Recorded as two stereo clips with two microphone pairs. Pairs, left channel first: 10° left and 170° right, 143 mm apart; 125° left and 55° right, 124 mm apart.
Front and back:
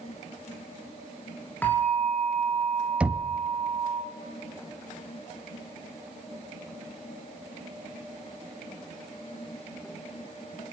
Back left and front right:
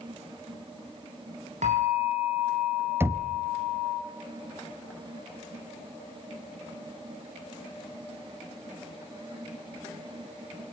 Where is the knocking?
95° right, 0.8 m.